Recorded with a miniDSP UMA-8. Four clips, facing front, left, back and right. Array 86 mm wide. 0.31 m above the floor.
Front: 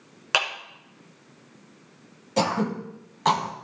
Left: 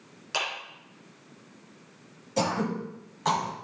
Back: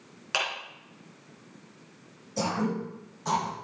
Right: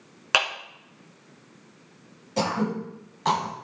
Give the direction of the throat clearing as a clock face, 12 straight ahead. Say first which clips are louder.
Right 2 dB, front 4 dB; 12 o'clock.